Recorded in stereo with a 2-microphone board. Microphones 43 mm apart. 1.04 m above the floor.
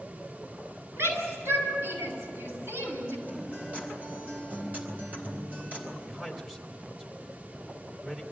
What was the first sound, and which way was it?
A shout, 70° right (ahead or behind).